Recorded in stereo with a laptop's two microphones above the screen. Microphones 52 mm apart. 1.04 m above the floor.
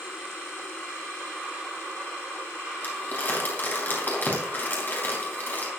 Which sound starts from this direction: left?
Crumpling, at 2.8 s.